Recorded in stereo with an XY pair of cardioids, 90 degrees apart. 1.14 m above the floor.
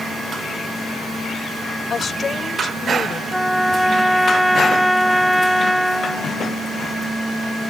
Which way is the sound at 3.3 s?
Straight ahead.